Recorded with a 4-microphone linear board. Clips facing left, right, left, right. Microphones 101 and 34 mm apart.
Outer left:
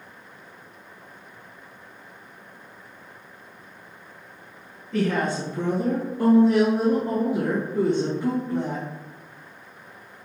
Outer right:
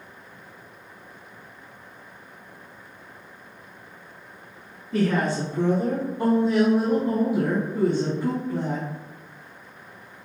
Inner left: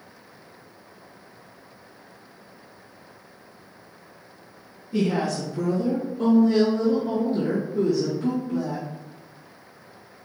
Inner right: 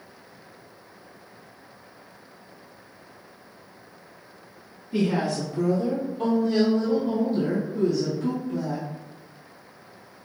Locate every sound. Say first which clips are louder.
4.9 s a woman speaking: outer right 1 dB, even; 5° right (ahead or behind), 1.4 m; by 8.8 s 15° left (ahead or behind), 3.5 m